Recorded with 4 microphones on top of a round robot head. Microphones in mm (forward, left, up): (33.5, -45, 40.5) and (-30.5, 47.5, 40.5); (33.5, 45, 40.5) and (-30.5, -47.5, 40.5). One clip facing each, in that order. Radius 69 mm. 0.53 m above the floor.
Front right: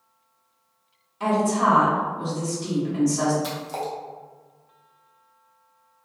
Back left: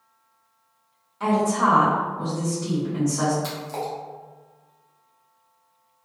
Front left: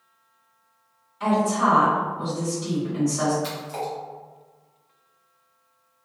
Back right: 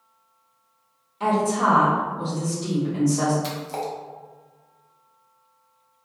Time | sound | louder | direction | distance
1.2 | a woman speaking | even, even | 135° right | 1.5 m
3.4 | a splash | even, back right 1 dB | 130° right | 0.9 m